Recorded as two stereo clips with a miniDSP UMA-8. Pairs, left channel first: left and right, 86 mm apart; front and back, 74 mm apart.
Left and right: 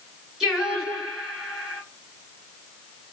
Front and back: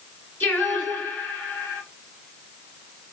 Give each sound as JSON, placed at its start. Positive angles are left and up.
{"t": 0.4, "sound": "singing", "azimuth_deg": 0, "distance_m": 1.6}